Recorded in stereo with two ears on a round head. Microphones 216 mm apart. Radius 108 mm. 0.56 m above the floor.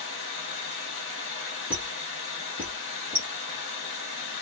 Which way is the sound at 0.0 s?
50° left (ahead or behind).